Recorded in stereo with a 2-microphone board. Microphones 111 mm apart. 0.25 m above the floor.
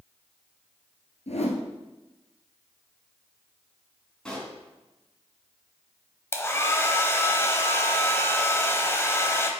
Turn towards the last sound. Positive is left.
turn(degrees=25)  # may be behind; listen again after turning